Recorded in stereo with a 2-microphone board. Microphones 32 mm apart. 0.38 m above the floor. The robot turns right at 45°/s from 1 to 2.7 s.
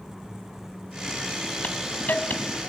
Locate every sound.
1.6 s a hiss: 70° left, 2.5 m; by 2.7 s 120° left, 2.5 m